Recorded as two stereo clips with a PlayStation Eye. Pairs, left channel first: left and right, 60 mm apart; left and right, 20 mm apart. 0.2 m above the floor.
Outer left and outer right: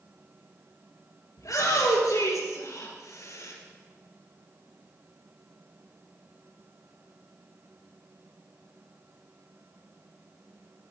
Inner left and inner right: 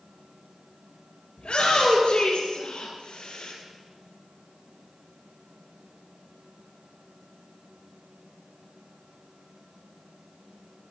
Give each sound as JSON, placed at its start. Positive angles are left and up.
{"t": 1.4, "sound": "a shout", "side_deg": 70, "distance_m": 3.5}